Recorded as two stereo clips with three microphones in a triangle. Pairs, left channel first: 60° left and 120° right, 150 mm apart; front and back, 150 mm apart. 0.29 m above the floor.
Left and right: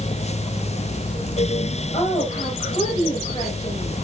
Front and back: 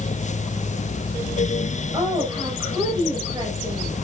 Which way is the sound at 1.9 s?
110° left.